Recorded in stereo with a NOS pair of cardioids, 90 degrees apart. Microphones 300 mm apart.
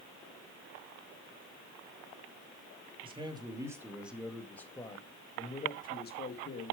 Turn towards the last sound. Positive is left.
turn(degrees=45)